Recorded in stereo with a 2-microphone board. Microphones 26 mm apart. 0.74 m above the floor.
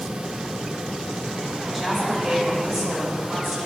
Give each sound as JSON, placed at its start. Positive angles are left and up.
{"t": 1.7, "sound": "a woman speaking", "side_deg": 5, "distance_m": 3.5}